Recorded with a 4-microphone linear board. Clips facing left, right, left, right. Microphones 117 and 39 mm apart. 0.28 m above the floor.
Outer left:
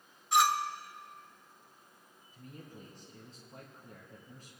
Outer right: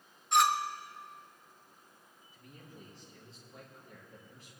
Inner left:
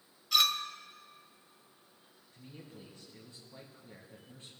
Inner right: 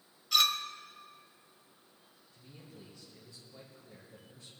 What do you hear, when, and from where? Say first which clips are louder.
0.3 s a clink: even, even; centre (ahead or behind), 0.7 m
2.3 s a man speaking: outer left 4 dB, inner left 3 dB; 40° left (ahead or behind), 2.5 m